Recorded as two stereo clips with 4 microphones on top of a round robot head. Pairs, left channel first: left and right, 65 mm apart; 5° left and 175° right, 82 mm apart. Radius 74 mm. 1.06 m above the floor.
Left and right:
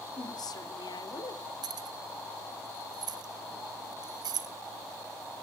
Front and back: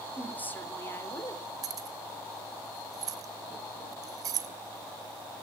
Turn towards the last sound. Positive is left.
turn(degrees=-120)